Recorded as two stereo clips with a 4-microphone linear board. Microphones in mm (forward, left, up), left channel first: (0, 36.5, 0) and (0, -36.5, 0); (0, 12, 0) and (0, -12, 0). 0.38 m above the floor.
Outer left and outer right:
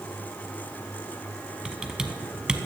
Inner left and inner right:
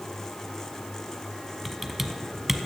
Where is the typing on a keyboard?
10° right (ahead or behind), 0.8 m.